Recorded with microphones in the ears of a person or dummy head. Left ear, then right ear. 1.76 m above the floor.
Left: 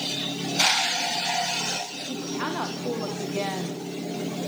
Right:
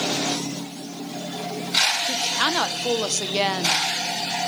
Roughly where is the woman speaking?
Right.